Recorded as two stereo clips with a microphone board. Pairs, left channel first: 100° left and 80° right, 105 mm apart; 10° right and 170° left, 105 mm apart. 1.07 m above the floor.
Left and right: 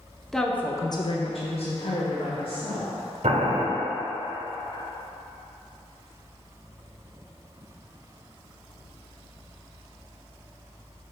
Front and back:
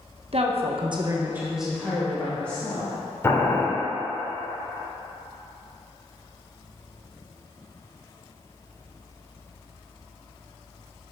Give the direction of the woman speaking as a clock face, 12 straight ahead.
6 o'clock.